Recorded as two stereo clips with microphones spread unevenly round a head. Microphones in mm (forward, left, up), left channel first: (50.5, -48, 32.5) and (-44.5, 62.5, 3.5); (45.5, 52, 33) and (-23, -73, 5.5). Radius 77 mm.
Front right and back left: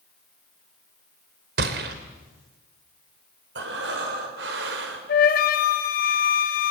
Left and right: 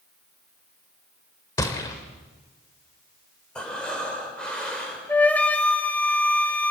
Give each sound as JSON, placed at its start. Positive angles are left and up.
{"t": 1.6, "sound": "a gunshot", "azimuth_deg": 120, "distance_m": 2.0}
{"t": 3.5, "sound": "breathing", "azimuth_deg": 145, "distance_m": 4.5}
{"t": 5.1, "sound": "a flute", "azimuth_deg": -20, "distance_m": 1.5}